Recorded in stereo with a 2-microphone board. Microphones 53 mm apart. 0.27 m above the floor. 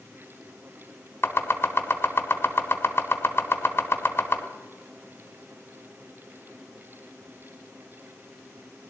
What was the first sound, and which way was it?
Chopping, 45° left (ahead or behind).